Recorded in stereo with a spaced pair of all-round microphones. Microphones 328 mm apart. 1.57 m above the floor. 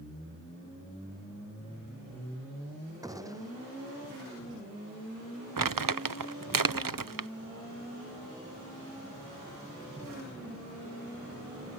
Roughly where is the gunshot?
Centre.